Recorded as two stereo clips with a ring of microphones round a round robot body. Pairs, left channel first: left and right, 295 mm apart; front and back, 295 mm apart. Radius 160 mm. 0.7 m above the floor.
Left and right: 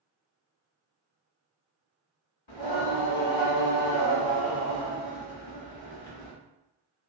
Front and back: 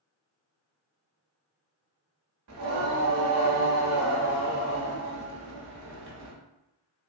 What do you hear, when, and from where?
2.5 s singing: 135° left, 0.9 m